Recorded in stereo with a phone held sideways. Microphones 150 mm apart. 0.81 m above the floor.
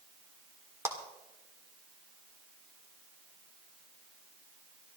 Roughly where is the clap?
Centre.